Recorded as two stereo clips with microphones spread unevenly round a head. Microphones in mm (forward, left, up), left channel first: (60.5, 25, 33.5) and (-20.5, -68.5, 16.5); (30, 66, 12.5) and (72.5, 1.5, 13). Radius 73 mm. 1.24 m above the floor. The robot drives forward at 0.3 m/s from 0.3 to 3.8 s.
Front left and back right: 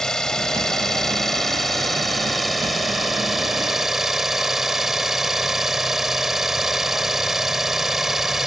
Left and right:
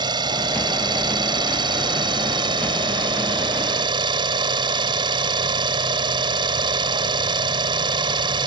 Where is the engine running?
35° right; by 8.5 s 40° right.